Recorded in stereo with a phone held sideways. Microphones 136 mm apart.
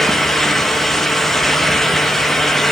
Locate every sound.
0.0 s a fan: centre (ahead or behind), 2 m